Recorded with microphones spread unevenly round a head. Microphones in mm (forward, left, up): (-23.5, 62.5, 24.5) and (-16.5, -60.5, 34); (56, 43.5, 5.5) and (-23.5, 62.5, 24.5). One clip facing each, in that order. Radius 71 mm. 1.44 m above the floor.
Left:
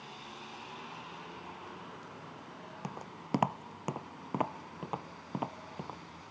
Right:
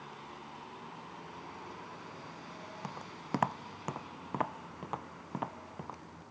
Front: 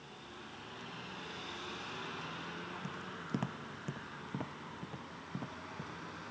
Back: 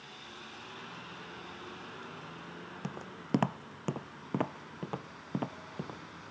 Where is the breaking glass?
I don't hear breaking glass.